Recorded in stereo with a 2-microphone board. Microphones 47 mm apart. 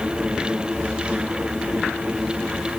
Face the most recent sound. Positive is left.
No sound to turn to.